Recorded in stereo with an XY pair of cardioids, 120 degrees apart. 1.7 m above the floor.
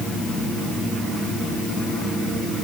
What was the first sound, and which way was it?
Only background noise.